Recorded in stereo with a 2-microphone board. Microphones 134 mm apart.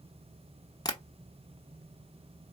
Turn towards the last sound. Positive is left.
turn(degrees=30)  # may be behind; listen again after turning